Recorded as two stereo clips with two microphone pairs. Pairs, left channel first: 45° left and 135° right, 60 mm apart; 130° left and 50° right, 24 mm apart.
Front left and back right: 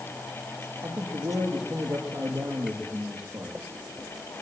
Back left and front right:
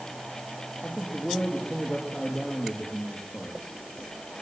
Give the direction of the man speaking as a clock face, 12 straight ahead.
5 o'clock.